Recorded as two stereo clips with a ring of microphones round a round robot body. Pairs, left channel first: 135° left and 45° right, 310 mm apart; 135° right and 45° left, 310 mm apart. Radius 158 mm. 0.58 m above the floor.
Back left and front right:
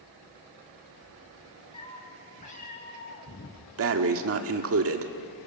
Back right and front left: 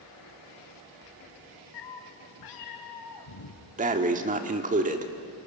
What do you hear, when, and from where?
1.7 s a cat meowing: 150° right, 3 m; by 3.6 s 165° right, 3.5 m
3.8 s breathing: 15° right, 1.4 m